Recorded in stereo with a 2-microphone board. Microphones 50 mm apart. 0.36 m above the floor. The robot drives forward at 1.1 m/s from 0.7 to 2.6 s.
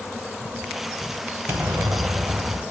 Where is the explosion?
45° right (ahead or behind), 0.6 m; by 2.6 s 30° right (ahead or behind), 0.9 m.